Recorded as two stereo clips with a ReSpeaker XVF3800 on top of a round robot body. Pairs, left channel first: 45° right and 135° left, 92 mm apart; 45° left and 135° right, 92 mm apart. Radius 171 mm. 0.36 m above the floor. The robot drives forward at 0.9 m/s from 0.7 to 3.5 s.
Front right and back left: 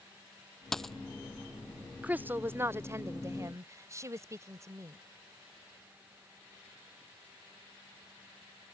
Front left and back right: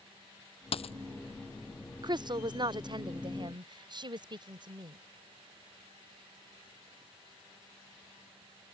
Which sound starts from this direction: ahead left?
A dropped coin, at 0.7 s.